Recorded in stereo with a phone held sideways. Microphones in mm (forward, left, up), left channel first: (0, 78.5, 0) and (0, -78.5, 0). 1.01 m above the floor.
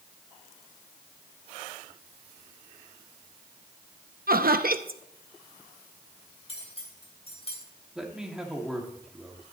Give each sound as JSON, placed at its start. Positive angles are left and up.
{"t": 4.3, "sound": "laughter", "side_deg": -70, "distance_m": 0.8}
{"t": 6.5, "sound": "cutlery clinking", "side_deg": 40, "distance_m": 3.0}
{"t": 8.0, "sound": "a man speaking", "side_deg": -5, "distance_m": 2.5}